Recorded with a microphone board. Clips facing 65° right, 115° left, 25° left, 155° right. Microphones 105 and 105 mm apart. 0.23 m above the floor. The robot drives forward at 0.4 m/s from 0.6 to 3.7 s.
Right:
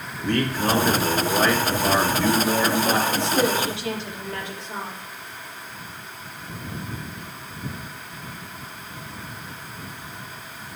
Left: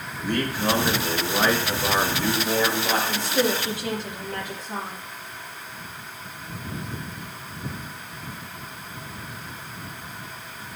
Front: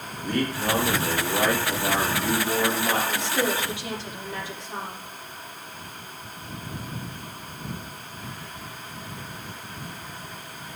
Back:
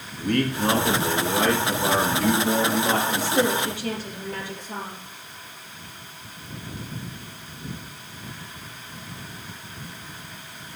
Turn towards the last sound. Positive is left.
turn(degrees=160)